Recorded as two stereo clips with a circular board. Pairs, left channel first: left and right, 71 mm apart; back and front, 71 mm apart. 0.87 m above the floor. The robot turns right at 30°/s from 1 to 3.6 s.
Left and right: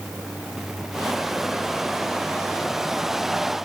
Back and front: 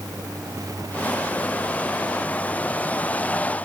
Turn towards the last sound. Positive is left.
No sound to turn to.